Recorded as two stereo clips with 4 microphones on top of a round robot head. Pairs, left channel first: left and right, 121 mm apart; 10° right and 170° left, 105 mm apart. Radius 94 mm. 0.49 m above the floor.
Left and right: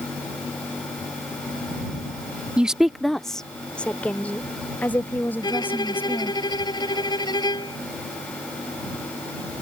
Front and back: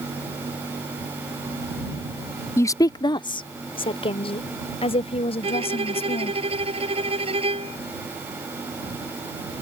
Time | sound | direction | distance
2.6 | a woman speaking | 20° right | ?
5.4 | a violin | 145° left | ?